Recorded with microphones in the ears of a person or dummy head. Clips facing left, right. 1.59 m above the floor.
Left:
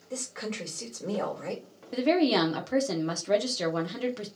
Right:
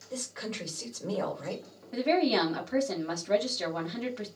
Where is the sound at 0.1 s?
45° left (ahead or behind), 2 m.